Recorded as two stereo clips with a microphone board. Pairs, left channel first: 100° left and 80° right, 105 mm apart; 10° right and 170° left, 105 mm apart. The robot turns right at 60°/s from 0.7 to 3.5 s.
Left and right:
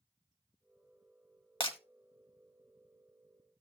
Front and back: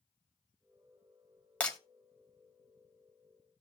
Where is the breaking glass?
65° left, 1.4 m; by 1.8 s 75° left, 1.4 m.